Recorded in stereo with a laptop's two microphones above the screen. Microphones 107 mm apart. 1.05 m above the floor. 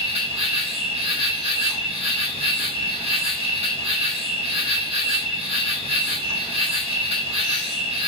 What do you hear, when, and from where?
0.0 s an insect: 70° right (ahead or behind), 1.5 m